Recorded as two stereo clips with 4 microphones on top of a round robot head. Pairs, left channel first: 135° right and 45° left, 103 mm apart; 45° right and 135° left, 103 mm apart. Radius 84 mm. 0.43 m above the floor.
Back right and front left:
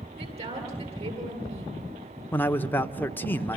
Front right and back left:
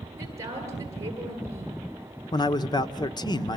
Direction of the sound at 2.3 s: 70° right.